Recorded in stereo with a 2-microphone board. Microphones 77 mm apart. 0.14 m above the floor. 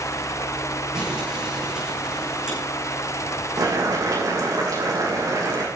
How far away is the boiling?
About 5 m.